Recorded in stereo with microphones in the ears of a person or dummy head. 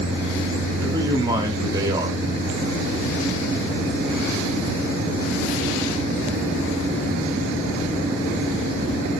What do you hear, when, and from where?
0.8 s a man speaking: 20° right (ahead or behind), 2.5 m